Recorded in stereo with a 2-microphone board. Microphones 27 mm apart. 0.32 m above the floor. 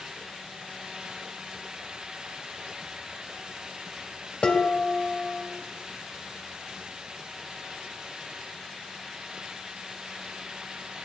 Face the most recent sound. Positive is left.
turn(degrees=45)  # may be behind; listen again after turning